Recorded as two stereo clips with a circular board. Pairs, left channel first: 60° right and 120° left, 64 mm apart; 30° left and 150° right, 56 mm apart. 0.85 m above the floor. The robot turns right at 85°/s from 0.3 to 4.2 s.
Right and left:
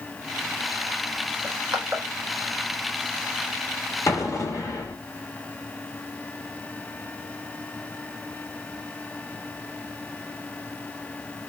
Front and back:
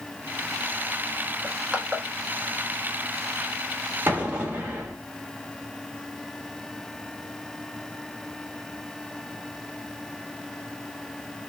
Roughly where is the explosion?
Right.